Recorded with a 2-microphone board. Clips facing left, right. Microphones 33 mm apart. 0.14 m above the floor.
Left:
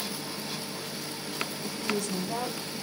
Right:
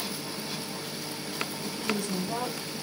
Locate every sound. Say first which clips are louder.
1.6 s a woman speaking: even; 30° right (ahead or behind), 1.8 m